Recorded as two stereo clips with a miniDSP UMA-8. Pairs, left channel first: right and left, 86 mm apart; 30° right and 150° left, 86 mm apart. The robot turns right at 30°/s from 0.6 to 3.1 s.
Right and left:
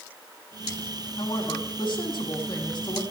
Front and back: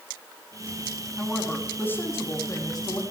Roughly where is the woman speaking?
Behind right.